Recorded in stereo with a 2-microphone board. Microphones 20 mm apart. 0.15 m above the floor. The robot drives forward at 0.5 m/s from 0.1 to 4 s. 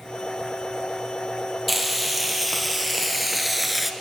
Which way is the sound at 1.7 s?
Centre (ahead or behind).